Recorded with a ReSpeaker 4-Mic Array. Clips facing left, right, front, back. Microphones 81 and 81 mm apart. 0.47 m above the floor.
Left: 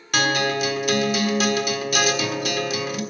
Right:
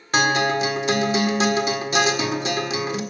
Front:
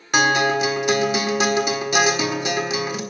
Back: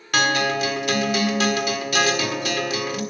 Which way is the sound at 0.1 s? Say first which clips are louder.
Right 2 dB, front 3 dB; 55° right.